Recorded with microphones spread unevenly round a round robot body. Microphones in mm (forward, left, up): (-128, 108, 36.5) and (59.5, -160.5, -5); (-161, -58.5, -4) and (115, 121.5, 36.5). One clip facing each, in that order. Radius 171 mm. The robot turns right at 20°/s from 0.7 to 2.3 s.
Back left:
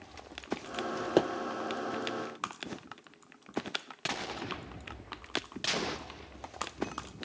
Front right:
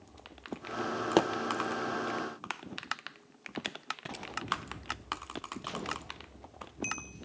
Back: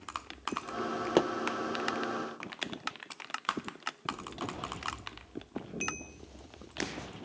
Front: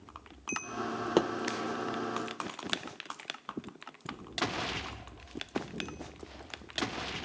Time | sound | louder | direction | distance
1.2 | a pop | even, even | 75° right | 0.6 m